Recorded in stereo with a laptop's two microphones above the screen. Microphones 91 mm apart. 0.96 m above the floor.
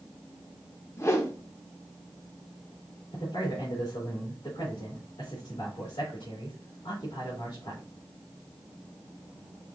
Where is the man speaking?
60° left (ahead or behind), 2.5 m.